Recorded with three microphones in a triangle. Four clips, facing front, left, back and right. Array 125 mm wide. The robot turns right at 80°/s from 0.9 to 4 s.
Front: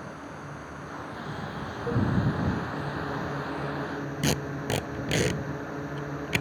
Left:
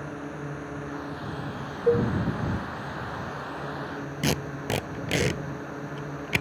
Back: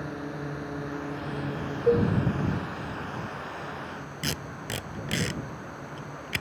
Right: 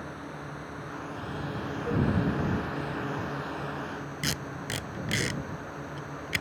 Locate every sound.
0.0 s a drone: 145° left; by 6.4 s 30° left
1.9 s dishes clattering: 125° left; by 2.1 s 145° left
4.2 s tape being pulled: 55° left